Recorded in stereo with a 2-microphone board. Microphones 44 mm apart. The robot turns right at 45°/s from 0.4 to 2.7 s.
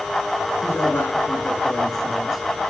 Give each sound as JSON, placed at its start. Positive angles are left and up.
{"t": 0.6, "sound": "a man speaking", "azimuth_deg": 105, "distance_m": 7.5}